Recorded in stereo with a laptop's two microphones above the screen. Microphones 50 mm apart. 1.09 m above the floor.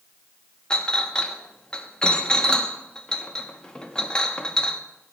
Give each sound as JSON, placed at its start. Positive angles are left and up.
{"t": 0.7, "sound": "a clink", "side_deg": 20, "distance_m": 1.2}